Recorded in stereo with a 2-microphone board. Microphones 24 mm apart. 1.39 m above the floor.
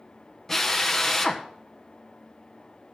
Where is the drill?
15° left (ahead or behind), 1.1 m.